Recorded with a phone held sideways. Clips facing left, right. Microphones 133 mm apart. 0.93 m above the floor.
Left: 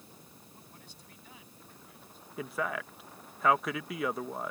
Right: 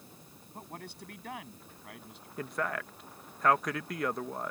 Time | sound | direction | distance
0.5 | a man speaking | 65° right (ahead or behind) | ?
2.4 | a man speaking | centre (ahead or behind) | ?